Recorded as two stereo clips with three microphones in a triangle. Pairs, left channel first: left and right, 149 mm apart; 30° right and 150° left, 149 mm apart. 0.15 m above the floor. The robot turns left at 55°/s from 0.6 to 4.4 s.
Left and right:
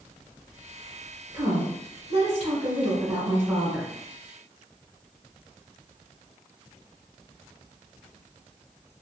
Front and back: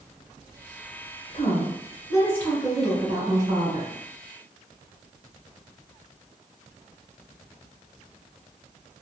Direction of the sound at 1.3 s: 45° right.